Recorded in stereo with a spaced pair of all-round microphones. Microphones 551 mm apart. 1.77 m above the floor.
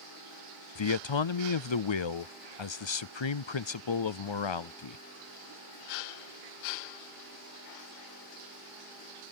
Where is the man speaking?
55° left (ahead or behind).